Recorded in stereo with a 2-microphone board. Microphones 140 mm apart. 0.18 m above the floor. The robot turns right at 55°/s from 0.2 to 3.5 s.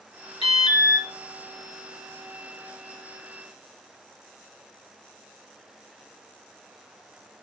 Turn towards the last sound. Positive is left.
turn(degrees=-60)